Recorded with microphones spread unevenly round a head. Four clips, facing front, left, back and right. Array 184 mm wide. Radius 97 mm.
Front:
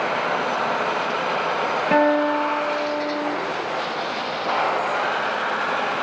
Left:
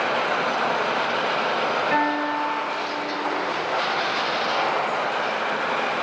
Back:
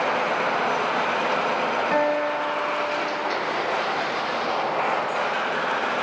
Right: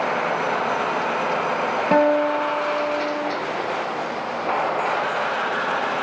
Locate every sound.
1.9 s a guitar: 65° right, 1.4 m